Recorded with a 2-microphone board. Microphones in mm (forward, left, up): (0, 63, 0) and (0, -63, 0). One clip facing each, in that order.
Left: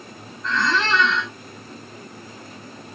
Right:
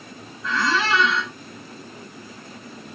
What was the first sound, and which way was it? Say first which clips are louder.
A squeak: even; 10° right (ahead or behind).